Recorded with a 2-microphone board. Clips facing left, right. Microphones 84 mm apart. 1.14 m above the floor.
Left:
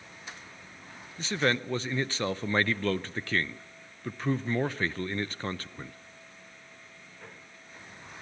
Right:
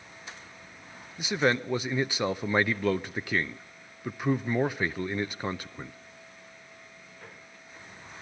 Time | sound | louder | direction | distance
1.2 | a man speaking | right 2 dB | 10° right (ahead or behind) | 0.5 m